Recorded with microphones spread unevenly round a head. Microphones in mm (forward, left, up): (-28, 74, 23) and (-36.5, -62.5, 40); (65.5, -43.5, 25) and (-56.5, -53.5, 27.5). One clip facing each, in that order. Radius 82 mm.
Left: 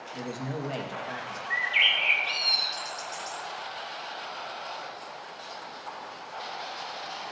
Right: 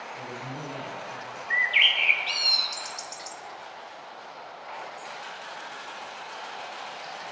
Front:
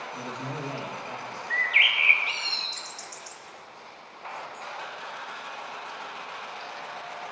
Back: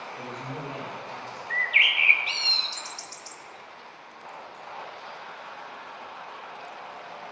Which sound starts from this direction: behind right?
A bird, at 1.5 s.